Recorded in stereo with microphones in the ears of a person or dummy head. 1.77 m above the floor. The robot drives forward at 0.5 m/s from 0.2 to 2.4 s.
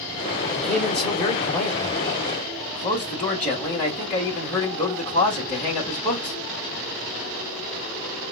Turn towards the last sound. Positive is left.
turn(degrees=0)  # may be behind; listen again after turning